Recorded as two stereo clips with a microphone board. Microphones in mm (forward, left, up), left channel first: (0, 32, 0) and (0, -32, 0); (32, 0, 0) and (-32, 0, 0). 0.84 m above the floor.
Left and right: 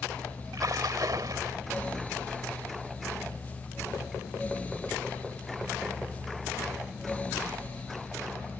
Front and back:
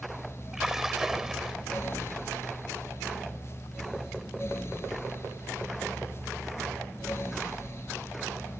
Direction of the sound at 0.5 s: 95° right.